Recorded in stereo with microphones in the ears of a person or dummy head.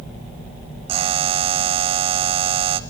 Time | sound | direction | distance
0.9 | a buzzer | 30° right (ahead or behind) | 0.8 m